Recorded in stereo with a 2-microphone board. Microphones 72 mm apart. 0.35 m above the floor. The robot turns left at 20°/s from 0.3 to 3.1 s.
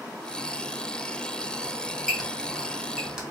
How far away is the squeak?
About 1.1 m.